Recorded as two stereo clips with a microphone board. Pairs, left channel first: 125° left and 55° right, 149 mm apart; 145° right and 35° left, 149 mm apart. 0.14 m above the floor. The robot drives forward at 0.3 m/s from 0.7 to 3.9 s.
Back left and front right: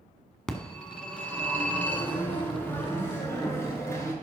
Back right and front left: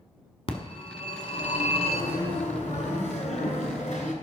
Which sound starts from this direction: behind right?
A phone ringing, at 0.5 s.